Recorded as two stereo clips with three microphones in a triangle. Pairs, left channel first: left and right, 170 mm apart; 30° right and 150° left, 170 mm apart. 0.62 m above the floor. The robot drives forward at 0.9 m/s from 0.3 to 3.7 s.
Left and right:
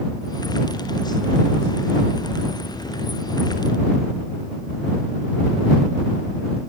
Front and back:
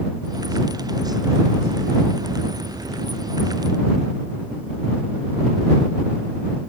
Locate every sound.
Only background noise.